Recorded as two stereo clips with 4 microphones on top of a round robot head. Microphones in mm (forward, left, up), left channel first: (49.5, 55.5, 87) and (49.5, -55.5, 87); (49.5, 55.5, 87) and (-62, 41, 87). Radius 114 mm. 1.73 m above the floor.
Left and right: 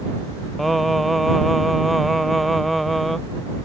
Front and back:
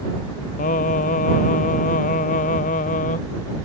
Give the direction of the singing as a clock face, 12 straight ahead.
12 o'clock.